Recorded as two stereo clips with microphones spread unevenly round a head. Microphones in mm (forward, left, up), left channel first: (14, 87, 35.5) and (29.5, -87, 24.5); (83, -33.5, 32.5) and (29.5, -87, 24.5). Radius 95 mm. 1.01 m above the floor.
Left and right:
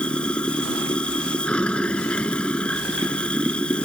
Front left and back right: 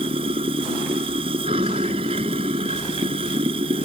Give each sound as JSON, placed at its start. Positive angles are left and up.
{"t": 0.0, "sound": "running water", "azimuth_deg": 180}